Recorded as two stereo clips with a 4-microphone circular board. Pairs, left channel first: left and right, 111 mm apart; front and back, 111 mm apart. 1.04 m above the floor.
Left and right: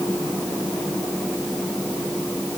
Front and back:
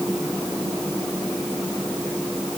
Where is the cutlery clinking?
No cutlery clinking in this recording.